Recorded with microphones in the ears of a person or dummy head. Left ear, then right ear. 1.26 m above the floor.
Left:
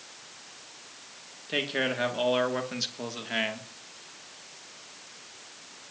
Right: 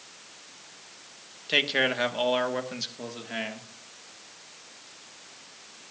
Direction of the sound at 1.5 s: 30° right (ahead or behind).